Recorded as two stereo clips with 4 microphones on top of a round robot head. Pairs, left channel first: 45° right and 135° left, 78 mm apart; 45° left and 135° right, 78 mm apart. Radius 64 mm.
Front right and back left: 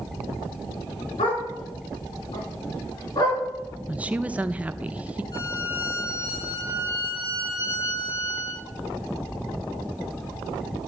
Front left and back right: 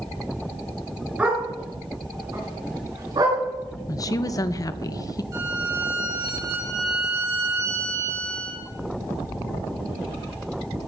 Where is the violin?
85° right, 6 m.